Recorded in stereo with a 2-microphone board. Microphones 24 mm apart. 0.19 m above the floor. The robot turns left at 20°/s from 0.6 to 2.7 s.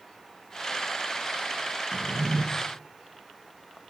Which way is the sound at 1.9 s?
30° right (ahead or behind).